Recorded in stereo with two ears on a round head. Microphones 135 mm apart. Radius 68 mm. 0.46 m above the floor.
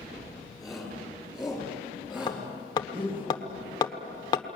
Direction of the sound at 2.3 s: 30° left (ahead or behind).